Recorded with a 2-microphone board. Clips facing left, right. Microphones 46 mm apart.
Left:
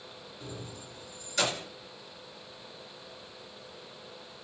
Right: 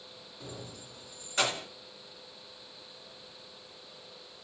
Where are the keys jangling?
60° right (ahead or behind), 1.8 m; by 1.7 s 20° right (ahead or behind), 1.5 m.